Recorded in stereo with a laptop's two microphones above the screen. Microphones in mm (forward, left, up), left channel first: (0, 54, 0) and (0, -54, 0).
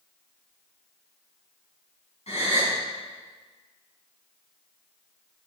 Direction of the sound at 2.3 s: 85° left.